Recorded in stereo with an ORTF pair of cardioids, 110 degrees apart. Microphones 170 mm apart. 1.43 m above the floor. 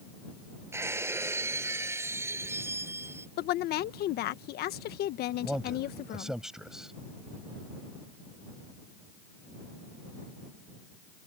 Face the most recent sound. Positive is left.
turn(degrees=0)